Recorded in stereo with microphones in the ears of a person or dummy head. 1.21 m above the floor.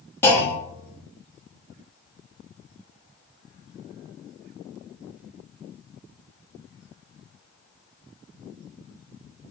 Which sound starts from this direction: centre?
A clunk, at 0.2 s.